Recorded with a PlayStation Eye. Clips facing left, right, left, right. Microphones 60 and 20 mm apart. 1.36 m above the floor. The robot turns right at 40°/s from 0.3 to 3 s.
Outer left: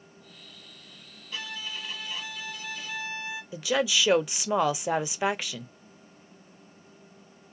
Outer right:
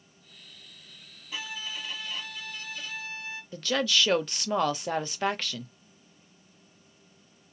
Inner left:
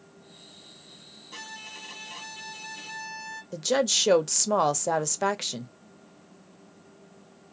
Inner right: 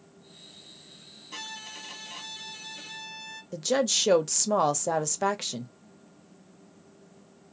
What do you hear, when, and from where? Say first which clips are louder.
1.3 s a violin: even, inner right 1 dB; 15° right (ahead or behind), 1.1 m; by 3.4 s 20° left (ahead or behind), 1.1 m
3.5 s a woman speaking: outer left 1 dB, inner left 1 dB; 10° left (ahead or behind), 0.5 m